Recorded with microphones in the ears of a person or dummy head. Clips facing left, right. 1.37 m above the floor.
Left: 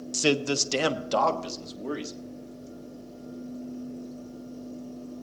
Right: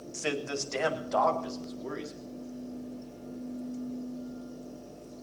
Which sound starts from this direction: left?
A man speaking, at 0.1 s.